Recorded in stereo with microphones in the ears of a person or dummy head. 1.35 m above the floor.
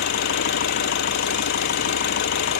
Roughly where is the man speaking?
No man speaking in this recording.